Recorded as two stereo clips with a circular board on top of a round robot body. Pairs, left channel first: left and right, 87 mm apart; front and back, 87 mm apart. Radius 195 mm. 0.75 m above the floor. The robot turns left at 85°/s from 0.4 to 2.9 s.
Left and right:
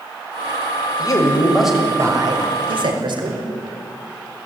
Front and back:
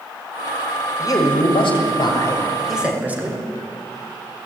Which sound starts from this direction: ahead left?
A man speaking, at 1.0 s.